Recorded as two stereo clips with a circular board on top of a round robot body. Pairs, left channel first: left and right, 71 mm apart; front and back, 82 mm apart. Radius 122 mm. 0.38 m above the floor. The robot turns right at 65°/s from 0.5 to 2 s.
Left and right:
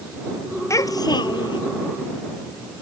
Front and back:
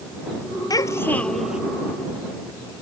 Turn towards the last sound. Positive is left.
turn(degrees=125)